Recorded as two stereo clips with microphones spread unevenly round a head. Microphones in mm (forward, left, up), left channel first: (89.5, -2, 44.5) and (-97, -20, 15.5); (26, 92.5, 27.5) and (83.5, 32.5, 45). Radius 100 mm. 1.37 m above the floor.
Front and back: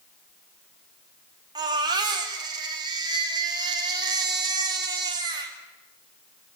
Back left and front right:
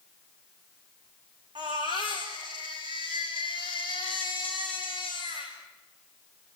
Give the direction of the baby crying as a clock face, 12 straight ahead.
4 o'clock.